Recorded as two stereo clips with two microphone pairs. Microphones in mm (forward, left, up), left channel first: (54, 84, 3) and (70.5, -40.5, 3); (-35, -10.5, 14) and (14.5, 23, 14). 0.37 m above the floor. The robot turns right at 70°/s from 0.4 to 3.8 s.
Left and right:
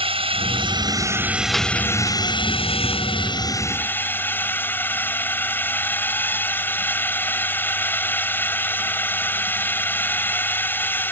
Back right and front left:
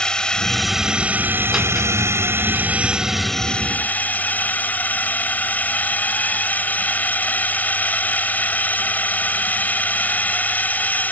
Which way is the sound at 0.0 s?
70° right.